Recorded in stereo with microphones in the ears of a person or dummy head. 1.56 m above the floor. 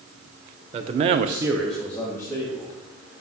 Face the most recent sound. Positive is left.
turn(degrees=20)  # may be behind; listen again after turning